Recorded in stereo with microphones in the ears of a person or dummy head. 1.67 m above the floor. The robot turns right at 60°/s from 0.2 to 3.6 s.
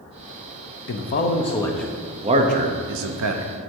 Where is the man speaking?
60° left (ahead or behind), 0.7 m; by 3.7 s 75° right (ahead or behind), 0.7 m.